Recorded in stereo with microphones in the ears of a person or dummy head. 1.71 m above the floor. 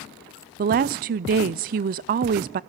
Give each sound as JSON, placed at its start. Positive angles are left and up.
{"t": 0.6, "sound": "a woman speaking", "side_deg": -50, "distance_m": 0.5}